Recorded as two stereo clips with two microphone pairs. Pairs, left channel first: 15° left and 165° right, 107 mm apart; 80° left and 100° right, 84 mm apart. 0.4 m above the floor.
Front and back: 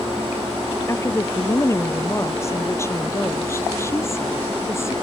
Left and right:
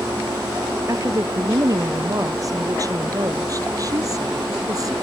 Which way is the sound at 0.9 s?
50° right.